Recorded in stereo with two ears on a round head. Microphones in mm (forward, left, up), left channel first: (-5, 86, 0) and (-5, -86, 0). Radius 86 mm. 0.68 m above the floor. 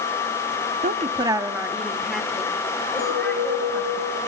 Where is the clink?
75° left (ahead or behind), 8.5 m.